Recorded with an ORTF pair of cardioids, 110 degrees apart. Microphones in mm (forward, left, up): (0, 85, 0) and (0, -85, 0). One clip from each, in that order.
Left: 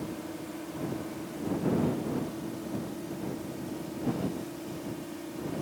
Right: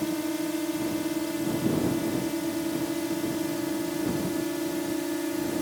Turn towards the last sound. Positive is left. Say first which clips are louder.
# right 9 dB
turn(degrees=-70)